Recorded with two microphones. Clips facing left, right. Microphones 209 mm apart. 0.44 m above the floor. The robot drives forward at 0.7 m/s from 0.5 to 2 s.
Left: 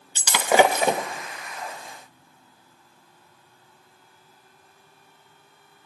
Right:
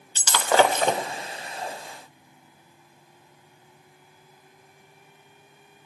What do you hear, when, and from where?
0.1 s breaking glass: 15° left (ahead or behind), 0.6 m; by 1.1 s 10° left (ahead or behind), 1.0 m